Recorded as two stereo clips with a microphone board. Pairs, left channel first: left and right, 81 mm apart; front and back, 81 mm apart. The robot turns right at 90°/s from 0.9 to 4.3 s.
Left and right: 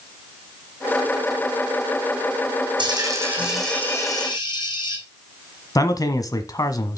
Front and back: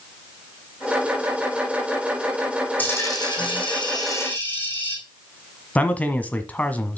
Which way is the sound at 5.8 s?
65° left.